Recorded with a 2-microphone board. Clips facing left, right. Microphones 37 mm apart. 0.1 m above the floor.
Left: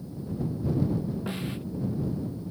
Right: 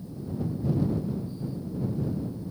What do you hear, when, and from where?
1.3 s a snare drum: 85° left